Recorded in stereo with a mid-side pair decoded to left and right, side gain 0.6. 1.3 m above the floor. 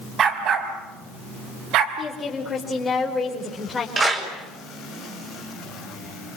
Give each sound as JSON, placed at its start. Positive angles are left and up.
{"t": 0.2, "sound": "a dog barking", "azimuth_deg": -45, "distance_m": 4.5}
{"t": 2.0, "sound": "a woman speaking", "azimuth_deg": 20, "distance_m": 5.0}
{"t": 4.0, "sound": "a clap", "azimuth_deg": -30, "distance_m": 6.5}